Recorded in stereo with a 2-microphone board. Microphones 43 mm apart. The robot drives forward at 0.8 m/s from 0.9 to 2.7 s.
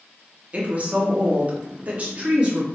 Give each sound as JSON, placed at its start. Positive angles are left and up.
{"t": 0.5, "sound": "a woman speaking", "side_deg": -30, "distance_m": 1.2}